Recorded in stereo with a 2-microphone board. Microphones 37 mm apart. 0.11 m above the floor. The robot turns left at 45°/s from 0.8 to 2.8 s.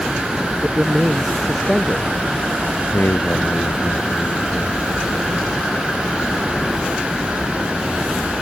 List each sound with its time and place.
0.6 s a man speaking: 150° right; by 2.1 s 155° left
2.9 s a man speaking: 70° left (ahead or behind)